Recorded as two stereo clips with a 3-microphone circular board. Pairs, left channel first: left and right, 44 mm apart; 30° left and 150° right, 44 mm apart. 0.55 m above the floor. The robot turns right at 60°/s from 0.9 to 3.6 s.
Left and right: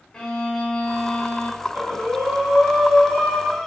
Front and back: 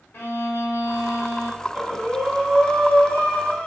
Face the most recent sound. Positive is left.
turn(degrees=25)